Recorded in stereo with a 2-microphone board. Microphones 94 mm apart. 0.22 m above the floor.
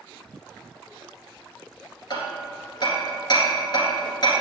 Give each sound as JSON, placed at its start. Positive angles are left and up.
{"t": 2.1, "sound": "hammering", "side_deg": 50, "distance_m": 1.8}